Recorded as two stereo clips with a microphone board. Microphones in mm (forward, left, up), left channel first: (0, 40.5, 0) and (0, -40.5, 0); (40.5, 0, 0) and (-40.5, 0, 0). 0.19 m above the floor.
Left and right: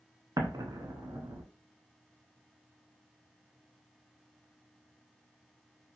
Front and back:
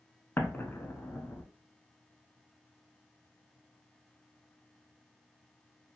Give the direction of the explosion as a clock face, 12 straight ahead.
2 o'clock.